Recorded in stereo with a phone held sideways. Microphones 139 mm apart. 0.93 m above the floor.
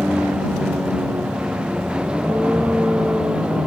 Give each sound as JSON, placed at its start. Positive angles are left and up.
{"t": 0.0, "sound": "a vehicle", "side_deg": -10}